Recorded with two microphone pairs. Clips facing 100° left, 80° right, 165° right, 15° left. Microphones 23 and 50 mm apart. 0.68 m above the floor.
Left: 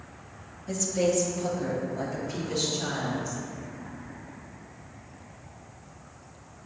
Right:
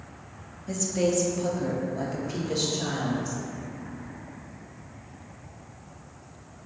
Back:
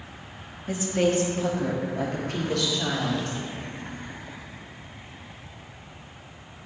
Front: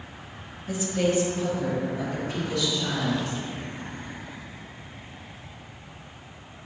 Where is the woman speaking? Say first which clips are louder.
Even, back 1 dB; 165° right, 0.8 m; by 3.4 s 145° right, 1.9 m.